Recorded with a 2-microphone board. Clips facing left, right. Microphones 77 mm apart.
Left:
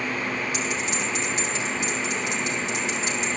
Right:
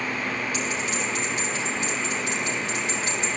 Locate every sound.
0.5 s a bell: 20° left (ahead or behind), 3.5 m